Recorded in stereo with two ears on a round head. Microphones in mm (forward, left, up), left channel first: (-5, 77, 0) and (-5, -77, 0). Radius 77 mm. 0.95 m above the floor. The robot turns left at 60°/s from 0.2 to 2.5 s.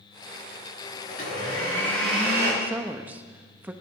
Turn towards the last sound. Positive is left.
turn(degrees=-10)  # may be behind; listen again after turning